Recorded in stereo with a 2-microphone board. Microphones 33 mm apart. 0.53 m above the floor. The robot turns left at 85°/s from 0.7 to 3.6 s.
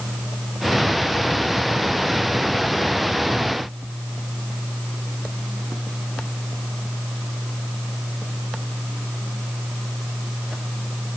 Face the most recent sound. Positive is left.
No sound to turn to.